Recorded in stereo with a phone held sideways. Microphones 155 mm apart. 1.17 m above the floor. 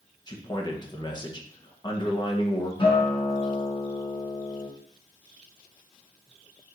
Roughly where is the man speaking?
Left.